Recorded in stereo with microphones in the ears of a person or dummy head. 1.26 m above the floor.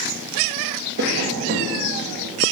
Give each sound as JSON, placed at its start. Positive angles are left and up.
{"t": 1.0, "sound": "tapping", "side_deg": -60, "distance_m": 0.9}